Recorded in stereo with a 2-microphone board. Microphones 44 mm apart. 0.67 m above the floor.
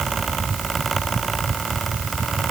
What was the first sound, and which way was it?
Only background noise.